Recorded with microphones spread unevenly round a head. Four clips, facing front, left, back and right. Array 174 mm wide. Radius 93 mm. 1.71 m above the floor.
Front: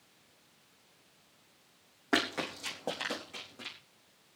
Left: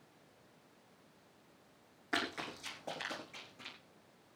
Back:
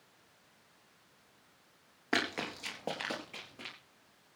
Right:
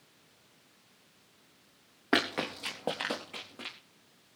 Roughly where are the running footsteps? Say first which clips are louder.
Right 9 dB, front 3 dB; right.